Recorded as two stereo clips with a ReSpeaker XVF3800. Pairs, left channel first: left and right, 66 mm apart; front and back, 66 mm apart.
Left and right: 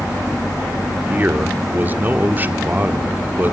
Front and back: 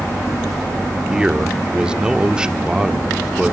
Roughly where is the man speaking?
Behind right.